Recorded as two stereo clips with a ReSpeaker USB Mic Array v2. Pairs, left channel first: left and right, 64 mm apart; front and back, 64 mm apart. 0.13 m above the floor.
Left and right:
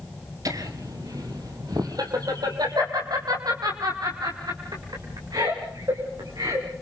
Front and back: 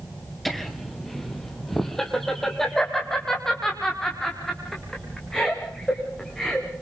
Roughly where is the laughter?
Right.